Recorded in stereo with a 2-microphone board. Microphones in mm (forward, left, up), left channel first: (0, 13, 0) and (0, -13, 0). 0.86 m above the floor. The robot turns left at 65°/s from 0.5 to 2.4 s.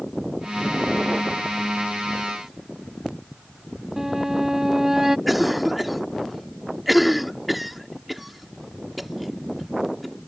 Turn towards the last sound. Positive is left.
turn(degrees=-5)  # may be behind; listen again after turning